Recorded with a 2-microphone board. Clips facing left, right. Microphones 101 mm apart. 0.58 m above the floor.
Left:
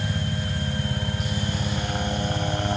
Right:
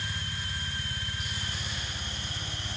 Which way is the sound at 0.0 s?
60° left (ahead or behind).